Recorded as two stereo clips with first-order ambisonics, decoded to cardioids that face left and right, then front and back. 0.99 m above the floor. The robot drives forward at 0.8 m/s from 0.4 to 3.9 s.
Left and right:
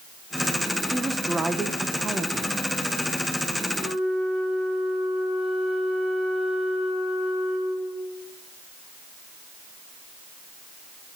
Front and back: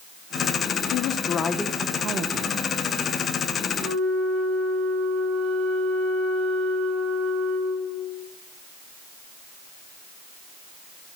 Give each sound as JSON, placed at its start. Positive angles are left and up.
{"t": 0.9, "sound": "a woman speaking", "azimuth_deg": -10, "distance_m": 0.9}
{"t": 3.8, "sound": "a flute", "azimuth_deg": -155, "distance_m": 3.5}